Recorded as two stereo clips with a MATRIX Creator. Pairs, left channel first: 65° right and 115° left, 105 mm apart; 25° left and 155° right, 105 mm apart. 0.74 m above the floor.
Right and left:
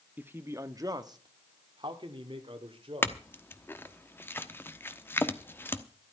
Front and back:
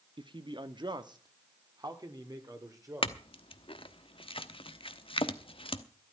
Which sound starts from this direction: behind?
A man speaking, at 0.2 s.